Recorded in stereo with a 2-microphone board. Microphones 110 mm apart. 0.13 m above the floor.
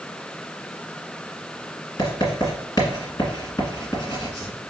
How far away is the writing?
About 1.6 m.